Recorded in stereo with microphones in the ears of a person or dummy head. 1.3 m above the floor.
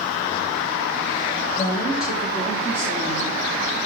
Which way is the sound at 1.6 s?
25° left (ahead or behind).